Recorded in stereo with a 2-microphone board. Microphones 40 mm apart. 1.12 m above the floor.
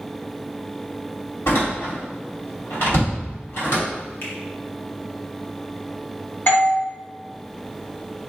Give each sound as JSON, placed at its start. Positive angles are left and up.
{"t": 1.5, "sound": "a door slam", "side_deg": 75, "distance_m": 2.0}
{"t": 4.2, "sound": "a finger snap", "side_deg": 55, "distance_m": 1.3}
{"t": 6.5, "sound": "a doorbell", "side_deg": 55, "distance_m": 1.9}